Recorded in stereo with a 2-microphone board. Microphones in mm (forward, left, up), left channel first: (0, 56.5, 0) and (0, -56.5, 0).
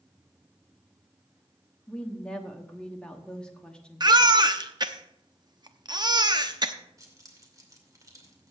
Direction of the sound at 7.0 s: 30° right (ahead or behind).